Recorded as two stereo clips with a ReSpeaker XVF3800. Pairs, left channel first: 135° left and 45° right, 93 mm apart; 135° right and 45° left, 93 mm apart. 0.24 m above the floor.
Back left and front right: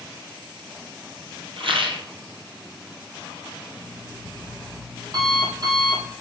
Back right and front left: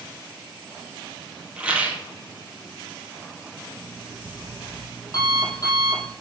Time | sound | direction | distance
1.6 | a rattle | 30° right | 1.8 m
3.7 | an alarm clock | 85° right | 4.5 m